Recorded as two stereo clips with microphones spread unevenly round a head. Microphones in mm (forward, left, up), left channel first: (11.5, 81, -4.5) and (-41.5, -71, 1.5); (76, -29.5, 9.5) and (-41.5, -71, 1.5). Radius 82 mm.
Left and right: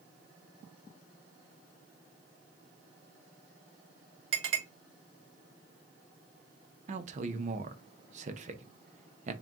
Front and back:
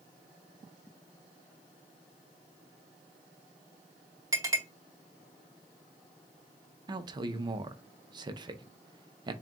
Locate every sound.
4.3 s a clink: 100° right, 1.8 m
6.9 s a man speaking: 130° right, 0.5 m